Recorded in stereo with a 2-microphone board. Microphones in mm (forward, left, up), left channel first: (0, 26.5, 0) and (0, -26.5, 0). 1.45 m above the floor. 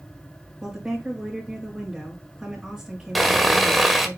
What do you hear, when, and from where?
0.6 s a woman speaking: 15° right (ahead or behind), 5 m
3.1 s sawing: centre (ahead or behind), 1.7 m